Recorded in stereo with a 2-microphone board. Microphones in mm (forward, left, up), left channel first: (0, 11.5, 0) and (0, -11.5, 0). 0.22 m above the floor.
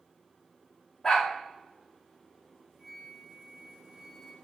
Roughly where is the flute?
Centre.